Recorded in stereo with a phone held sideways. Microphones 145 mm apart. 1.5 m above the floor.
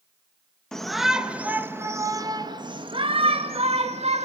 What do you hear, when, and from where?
0.7 s a shout: 5° left (ahead or behind), 1.5 m; by 4.2 s 50° right (ahead or behind), 2 m